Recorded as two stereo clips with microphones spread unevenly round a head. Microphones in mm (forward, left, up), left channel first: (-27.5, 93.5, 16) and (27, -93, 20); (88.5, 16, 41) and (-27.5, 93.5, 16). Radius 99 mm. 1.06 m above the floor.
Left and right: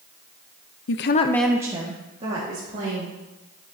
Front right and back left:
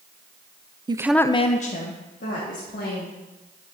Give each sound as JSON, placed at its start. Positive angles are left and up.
{"t": 0.9, "sound": "a woman speaking", "azimuth_deg": 90, "distance_m": 0.6}